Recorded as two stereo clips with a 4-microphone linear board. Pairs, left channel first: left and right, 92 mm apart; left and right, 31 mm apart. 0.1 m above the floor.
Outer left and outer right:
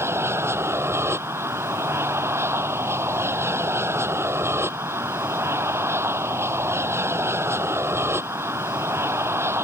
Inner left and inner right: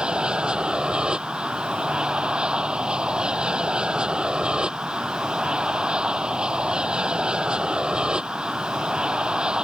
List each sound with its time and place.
0.0 s an aircraft: 30° right (ahead or behind)